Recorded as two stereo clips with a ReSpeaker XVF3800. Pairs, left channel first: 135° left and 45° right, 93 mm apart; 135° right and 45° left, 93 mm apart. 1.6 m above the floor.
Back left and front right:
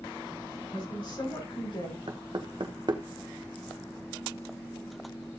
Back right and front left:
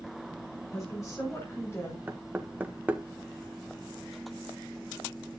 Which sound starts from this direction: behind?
A woman speaking, at 0.7 s.